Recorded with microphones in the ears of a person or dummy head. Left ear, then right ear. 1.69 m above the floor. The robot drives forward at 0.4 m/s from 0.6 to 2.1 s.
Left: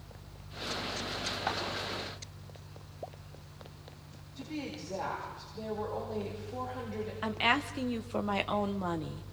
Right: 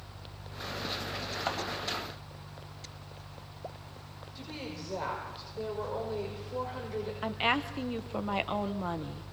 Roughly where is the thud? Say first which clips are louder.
Right 1 dB; centre.